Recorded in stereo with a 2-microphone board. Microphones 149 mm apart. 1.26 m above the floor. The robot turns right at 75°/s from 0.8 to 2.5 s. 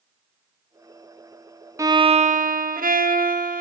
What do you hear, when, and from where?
1.8 s a violin: 160° right, 1.2 m; by 3.6 s 105° right, 1.2 m